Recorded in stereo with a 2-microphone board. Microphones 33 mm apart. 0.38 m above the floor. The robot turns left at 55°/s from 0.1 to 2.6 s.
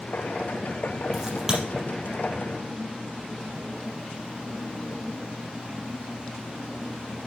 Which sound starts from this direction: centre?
A crack, at 1.1 s.